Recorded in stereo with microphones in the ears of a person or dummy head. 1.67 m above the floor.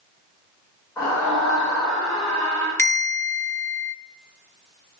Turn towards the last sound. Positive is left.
turn(degrees=10)  # may be behind; listen again after turning